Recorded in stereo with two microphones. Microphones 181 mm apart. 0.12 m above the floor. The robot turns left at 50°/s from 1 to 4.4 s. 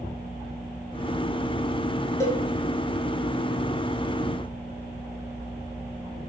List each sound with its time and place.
2.2 s a cowbell: 15° left (ahead or behind), 0.6 m; by 2.4 s 20° left (ahead or behind), 0.6 m